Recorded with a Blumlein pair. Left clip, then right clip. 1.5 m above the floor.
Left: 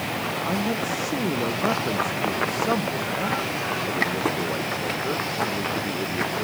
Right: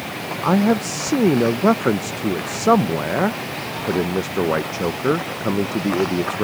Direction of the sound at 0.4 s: 30° right.